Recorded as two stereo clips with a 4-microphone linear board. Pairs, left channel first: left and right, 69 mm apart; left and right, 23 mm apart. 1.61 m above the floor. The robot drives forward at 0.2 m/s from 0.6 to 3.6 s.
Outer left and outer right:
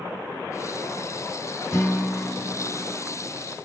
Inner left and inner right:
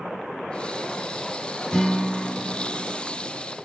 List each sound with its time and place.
1.7 s a guitar: 40° left (ahead or behind), 1.1 m; by 3.5 s 45° left (ahead or behind), 1.0 m